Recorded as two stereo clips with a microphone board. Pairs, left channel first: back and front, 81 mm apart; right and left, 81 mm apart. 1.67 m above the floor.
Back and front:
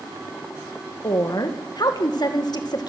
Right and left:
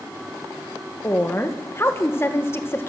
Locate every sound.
1.0 s a woman speaking: 150° right, 2.0 m